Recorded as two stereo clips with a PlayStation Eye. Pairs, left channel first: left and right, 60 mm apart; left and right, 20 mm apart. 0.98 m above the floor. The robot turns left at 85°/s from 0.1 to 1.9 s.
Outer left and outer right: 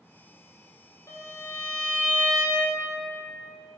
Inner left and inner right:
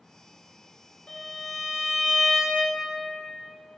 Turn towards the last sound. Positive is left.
turn(degrees=5)